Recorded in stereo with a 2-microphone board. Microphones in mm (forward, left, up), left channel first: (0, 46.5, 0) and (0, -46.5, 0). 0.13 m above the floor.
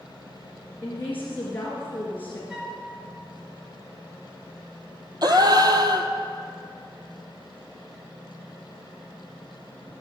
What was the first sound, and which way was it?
A woman speaking, 20° left (ahead or behind).